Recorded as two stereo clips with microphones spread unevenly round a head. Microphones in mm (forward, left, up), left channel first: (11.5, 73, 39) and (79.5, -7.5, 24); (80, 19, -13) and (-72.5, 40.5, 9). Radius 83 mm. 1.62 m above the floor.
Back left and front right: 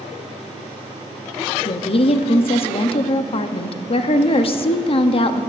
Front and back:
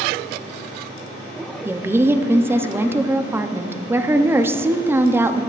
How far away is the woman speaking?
About 0.8 m.